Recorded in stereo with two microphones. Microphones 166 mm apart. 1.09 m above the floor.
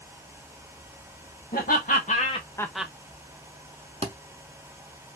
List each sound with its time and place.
1.5 s laughter: 65° left (ahead or behind), 1.0 m; by 2.9 s 15° right (ahead or behind), 0.5 m
4.0 s a thud: 40° right (ahead or behind), 0.8 m